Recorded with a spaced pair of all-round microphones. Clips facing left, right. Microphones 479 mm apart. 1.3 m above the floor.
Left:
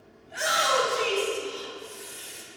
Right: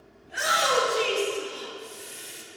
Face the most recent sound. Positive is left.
turn(degrees=-30)  # may be behind; listen again after turning